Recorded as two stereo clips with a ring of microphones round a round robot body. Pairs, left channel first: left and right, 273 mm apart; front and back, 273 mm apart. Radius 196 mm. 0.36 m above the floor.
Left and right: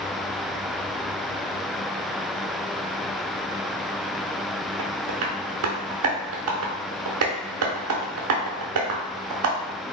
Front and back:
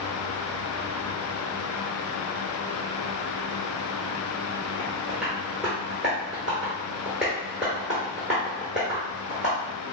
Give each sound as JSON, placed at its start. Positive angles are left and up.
{"t": 4.8, "sound": "tapping", "azimuth_deg": -95, "distance_m": 0.7}